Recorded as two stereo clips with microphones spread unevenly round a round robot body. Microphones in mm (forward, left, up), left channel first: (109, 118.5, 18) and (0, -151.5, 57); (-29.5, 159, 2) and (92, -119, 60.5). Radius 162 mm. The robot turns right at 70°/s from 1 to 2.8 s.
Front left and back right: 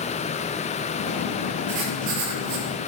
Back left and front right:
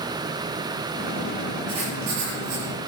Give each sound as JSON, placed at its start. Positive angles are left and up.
{"t": 1.7, "sound": "writing", "azimuth_deg": -145, "distance_m": 7.0}